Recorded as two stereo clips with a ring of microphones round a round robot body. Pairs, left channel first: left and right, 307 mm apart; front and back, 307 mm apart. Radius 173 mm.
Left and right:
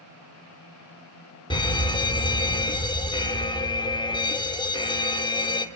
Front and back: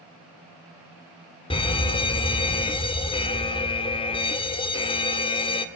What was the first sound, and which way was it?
A fire alarm, 40° left.